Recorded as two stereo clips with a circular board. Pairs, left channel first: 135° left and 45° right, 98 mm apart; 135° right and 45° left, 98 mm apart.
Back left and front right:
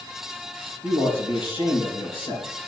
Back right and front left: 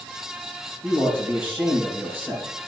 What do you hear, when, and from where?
0.8 s a man speaking: 115° left, 3.5 m